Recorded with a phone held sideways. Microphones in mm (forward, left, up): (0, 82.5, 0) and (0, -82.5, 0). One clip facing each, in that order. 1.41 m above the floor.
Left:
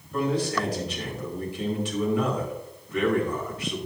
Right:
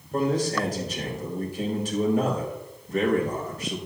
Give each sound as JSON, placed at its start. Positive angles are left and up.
{"t": 0.1, "sound": "a man speaking", "side_deg": -45, "distance_m": 4.5}